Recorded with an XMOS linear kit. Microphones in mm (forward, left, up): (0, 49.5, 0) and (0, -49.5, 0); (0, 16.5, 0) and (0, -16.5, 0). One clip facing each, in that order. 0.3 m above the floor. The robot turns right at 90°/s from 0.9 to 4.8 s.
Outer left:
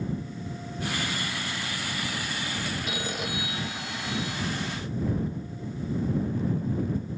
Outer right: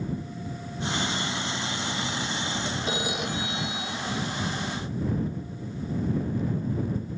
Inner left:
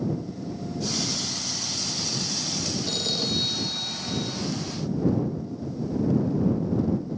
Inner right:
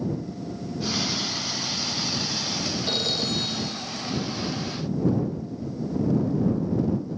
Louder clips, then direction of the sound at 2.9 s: Outer right 3 dB, inner right 1 dB; 30° right.